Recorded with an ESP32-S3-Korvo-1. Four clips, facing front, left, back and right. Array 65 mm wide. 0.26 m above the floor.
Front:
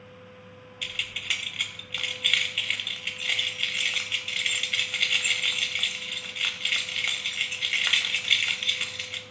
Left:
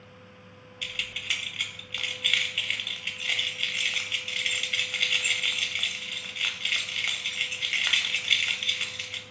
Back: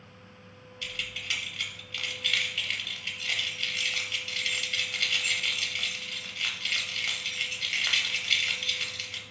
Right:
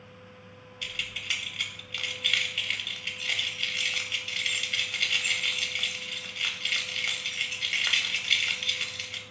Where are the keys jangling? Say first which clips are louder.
Left 1 dB, front 3 dB; 20° left, 0.6 m.